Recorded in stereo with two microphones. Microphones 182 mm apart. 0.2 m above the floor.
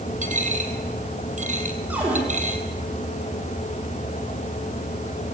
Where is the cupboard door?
10° right (ahead or behind), 7.5 m.